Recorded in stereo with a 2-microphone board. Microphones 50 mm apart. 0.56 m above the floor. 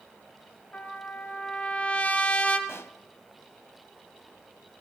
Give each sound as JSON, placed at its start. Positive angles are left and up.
{"t": 0.7, "sound": "a trumpet", "side_deg": 30, "distance_m": 1.2}
{"t": 2.7, "sound": "a pop", "side_deg": 50, "distance_m": 0.6}